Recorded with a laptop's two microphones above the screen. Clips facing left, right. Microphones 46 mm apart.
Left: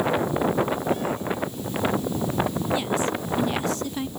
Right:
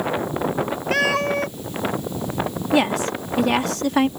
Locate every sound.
0.9 s a cat meowing: 80° right
2.7 s a woman speaking: 80° right